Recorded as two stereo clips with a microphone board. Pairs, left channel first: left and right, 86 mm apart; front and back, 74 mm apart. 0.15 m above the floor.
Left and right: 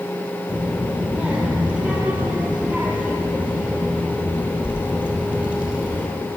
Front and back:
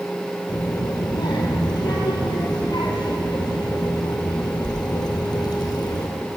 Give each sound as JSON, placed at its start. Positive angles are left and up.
{"t": 0.5, "sound": "a child speaking", "azimuth_deg": -15, "distance_m": 2.5}